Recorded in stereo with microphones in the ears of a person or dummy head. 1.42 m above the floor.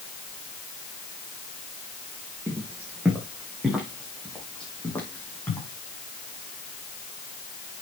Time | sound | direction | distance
2.5 | footsteps | 15° right (ahead or behind) | 3.5 m